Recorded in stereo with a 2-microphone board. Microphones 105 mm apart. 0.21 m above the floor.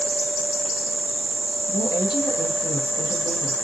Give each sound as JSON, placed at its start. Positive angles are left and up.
{"t": 1.7, "sound": "a woman speaking", "side_deg": 45, "distance_m": 1.7}